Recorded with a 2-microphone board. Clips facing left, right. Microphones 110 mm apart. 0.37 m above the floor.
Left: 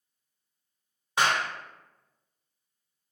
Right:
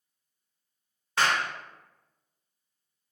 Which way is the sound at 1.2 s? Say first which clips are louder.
Even; 15° left (ahead or behind).